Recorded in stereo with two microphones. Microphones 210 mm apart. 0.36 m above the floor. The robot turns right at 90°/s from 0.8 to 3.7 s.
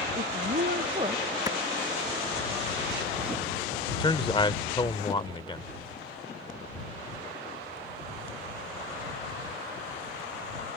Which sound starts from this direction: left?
A man speaking, at 3.9 s.